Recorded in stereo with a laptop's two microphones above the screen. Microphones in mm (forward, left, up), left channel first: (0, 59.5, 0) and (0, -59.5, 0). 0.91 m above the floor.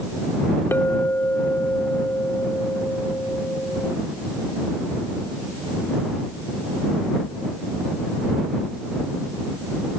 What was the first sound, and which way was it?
A clink, 20° left (ahead or behind).